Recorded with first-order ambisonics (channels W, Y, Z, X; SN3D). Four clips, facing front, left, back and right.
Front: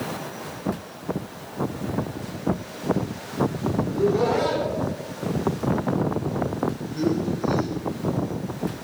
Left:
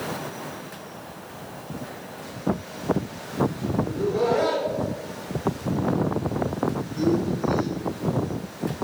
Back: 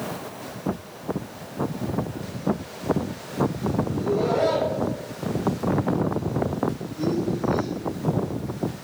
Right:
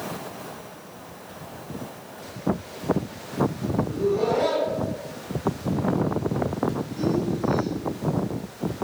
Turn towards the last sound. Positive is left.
turn(degrees=10)